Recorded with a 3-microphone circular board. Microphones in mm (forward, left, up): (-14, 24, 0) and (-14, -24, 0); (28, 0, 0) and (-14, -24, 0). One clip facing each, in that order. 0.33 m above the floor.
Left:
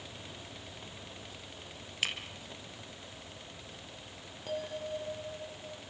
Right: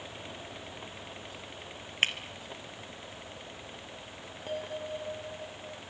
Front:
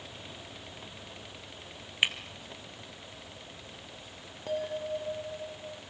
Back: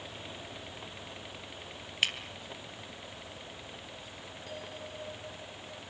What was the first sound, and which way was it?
Breaking glass, 40° right.